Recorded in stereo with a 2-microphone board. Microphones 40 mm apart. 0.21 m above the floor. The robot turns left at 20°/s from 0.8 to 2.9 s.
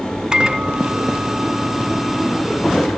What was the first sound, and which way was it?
A microwave, 150° right.